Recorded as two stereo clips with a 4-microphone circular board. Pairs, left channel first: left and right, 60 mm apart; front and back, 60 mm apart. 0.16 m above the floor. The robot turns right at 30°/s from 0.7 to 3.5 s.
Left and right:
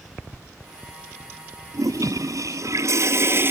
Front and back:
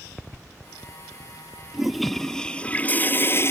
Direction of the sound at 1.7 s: 95° right.